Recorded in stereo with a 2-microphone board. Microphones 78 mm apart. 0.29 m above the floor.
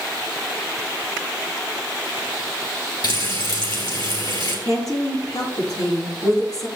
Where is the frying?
65° left (ahead or behind), 3 m.